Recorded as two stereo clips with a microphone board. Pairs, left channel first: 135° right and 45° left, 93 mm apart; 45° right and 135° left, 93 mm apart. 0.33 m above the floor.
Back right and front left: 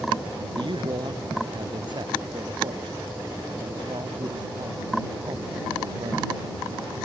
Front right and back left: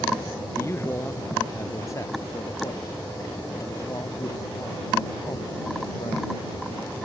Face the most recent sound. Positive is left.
turn(degrees=5)